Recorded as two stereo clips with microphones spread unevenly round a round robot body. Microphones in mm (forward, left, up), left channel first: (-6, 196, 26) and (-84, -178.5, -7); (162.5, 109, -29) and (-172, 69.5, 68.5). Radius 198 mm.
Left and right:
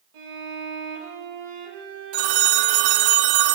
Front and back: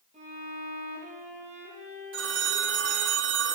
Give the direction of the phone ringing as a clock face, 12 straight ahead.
4 o'clock.